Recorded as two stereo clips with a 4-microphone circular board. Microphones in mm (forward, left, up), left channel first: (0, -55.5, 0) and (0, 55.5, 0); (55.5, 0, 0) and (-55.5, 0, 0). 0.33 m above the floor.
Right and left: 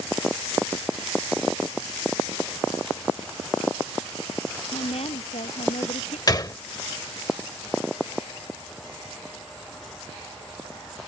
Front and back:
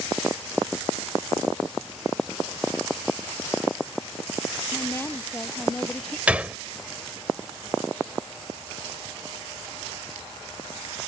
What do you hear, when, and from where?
4.7 s a woman speaking: 65° right; by 6.2 s 80° right
6.3 s a gunshot: 110° right